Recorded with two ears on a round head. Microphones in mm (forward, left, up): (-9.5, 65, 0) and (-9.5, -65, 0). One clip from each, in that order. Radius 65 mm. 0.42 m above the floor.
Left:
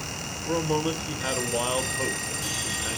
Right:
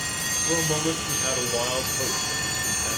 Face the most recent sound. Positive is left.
turn(degrees=15)  # may be behind; listen again after turning